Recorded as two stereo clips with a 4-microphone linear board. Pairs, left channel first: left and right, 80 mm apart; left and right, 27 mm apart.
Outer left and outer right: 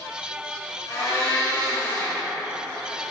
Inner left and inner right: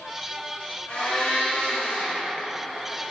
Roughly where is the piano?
No piano in this recording.